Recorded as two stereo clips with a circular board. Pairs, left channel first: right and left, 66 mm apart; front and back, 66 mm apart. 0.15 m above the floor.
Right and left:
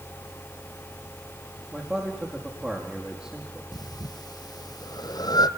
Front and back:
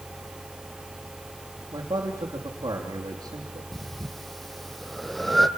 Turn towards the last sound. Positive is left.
turn(degrees=-90)